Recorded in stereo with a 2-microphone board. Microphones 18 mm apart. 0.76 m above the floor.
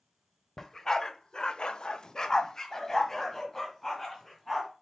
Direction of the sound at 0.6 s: 15° left (ahead or behind).